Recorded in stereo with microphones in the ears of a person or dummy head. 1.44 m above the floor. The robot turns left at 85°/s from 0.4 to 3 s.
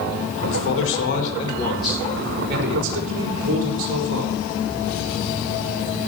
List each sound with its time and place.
0.5 s a man speaking: 110° left, 5 m; by 4.3 s 105° right, 5 m